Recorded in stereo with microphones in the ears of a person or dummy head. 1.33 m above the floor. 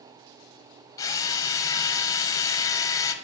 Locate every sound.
1.0 s a drill: 20° left (ahead or behind), 0.7 m